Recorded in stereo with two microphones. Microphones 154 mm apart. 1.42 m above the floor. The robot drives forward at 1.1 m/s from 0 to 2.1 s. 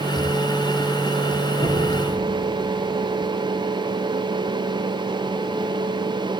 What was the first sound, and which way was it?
Knocking, 50° right (ahead or behind).